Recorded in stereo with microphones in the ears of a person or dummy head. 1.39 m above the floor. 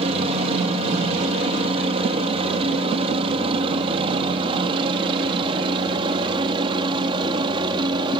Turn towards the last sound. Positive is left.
turn(degrees=-20)  # may be behind; listen again after turning